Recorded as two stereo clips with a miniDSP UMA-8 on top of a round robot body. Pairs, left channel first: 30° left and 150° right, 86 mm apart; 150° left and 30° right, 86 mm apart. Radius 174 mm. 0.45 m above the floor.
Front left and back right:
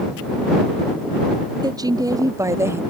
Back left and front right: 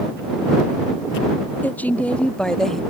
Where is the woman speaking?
145° right; by 2.8 s 125° right.